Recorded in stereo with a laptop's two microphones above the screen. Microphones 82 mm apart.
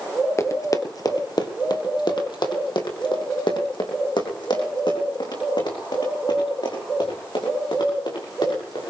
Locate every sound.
0.4 s running footsteps: 35° left (ahead or behind), 1.2 m; by 8.9 s 75° left (ahead or behind), 6.5 m